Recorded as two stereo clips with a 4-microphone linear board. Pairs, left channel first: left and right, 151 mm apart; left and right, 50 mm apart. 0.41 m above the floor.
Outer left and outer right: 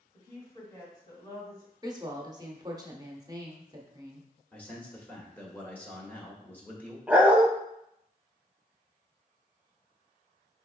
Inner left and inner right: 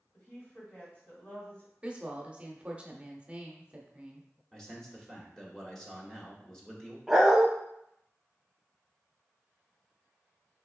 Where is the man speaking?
10° left (ahead or behind), 1.2 m.